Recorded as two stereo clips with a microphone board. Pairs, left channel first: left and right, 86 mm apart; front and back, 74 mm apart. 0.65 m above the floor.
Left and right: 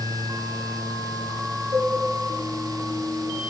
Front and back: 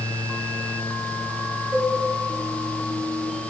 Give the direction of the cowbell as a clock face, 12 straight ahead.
4 o'clock.